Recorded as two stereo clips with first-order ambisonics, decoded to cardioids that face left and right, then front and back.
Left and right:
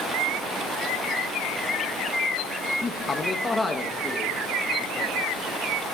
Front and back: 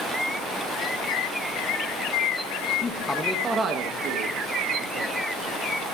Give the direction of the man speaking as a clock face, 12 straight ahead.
11 o'clock.